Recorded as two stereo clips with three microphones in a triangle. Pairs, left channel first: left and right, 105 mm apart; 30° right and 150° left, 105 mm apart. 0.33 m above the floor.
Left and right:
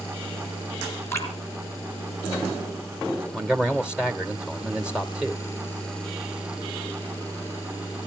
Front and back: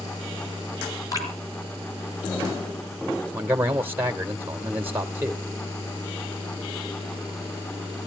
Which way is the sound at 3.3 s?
160° right.